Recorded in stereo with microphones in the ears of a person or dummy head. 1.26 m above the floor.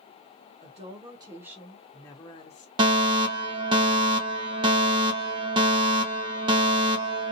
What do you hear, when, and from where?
0.6 s a woman speaking: 35° right (ahead or behind), 1.0 m; by 2.7 s 40° left (ahead or behind), 0.9 m
2.8 s a fire alarm: 25° right (ahead or behind), 0.8 m